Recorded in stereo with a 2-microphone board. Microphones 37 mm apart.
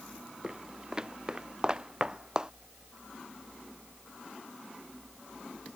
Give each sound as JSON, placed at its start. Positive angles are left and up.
{"t": 0.4, "sound": "footsteps", "side_deg": -20}